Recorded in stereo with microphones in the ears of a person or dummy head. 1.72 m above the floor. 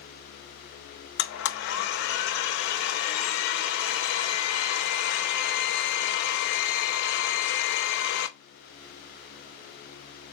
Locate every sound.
1.2 s a blender: 65° left (ahead or behind), 0.7 m